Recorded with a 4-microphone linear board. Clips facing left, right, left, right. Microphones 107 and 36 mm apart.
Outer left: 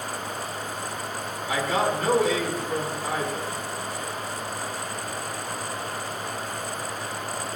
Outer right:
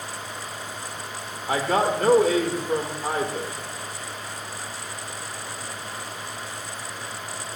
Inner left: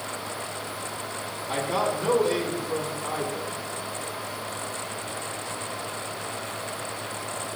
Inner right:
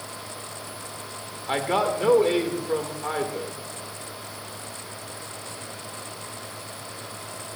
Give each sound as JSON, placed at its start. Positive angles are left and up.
{"t": 1.5, "sound": "a man speaking", "side_deg": -50, "distance_m": 1.9}